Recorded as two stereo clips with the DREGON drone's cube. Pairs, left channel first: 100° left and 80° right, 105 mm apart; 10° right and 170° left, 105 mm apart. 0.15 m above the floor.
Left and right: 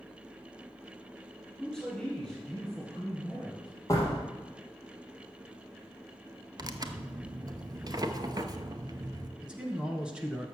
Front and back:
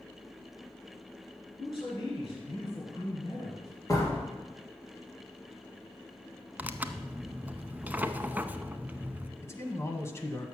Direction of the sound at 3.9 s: 45° left.